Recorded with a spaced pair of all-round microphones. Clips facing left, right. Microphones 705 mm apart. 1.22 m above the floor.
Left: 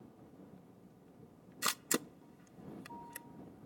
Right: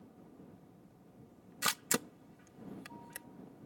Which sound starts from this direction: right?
A camera shutter, at 1.6 s.